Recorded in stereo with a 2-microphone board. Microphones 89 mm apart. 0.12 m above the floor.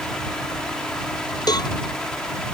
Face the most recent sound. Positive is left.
turn(degrees=45)  # may be behind; listen again after turning